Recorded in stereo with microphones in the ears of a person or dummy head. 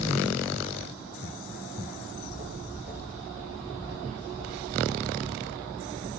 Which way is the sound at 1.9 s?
45° left (ahead or behind).